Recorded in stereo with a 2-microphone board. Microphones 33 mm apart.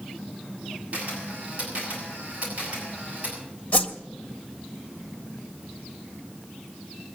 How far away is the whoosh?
About 1.5 m.